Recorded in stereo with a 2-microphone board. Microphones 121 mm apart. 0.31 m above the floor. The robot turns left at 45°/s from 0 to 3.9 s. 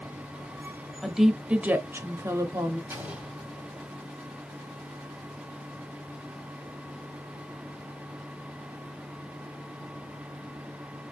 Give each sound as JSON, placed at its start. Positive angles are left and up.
{"t": 1.0, "sound": "a woman speaking", "side_deg": 0, "distance_m": 1.0}
{"t": 2.9, "sound": "an explosion", "side_deg": -20, "distance_m": 2.0}